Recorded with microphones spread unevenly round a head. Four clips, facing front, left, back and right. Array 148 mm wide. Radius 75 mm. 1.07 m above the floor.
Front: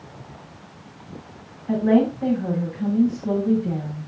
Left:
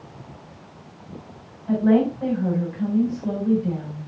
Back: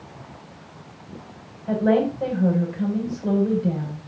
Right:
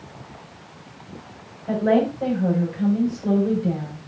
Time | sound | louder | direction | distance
1.7 | a woman speaking | left 1 dB, front 1 dB | 145° right | 7 m